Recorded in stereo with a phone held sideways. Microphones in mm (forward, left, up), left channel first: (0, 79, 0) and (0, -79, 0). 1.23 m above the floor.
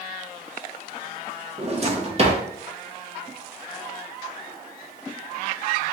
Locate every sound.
1.6 s a drawer: 40° right (ahead or behind), 0.7 m